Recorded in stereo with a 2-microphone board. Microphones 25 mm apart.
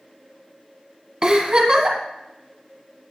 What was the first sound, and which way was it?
A giggle, 30° right (ahead or behind).